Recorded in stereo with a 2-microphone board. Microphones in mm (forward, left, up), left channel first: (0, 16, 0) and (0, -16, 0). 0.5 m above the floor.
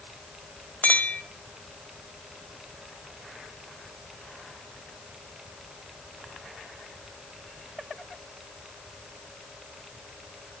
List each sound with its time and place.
0.8 s a clink: 50° left (ahead or behind), 1.6 m